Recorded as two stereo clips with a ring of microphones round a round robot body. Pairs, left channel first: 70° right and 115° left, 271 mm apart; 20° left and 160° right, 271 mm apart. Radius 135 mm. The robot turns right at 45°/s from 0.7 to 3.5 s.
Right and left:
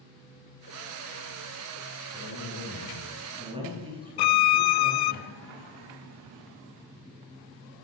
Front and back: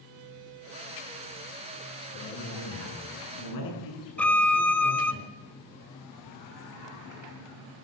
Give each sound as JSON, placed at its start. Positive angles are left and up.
{"t": 2.1, "sound": "a man speaking", "azimuth_deg": -20, "distance_m": 9.0}
{"t": 4.2, "sound": "a violin", "azimuth_deg": -65, "distance_m": 0.7}